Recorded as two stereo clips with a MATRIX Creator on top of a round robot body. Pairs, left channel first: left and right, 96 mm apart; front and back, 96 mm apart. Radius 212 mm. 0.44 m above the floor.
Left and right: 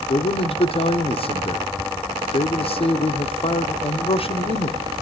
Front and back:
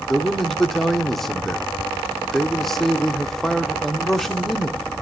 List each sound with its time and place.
0.1 s a man speaking: 85° left, 1.6 m